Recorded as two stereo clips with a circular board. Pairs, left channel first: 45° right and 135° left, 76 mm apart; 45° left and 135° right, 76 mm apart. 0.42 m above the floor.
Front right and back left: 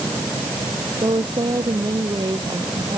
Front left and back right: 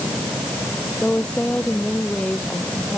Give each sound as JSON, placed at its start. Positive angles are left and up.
{"t": 1.0, "sound": "a woman speaking", "azimuth_deg": 120}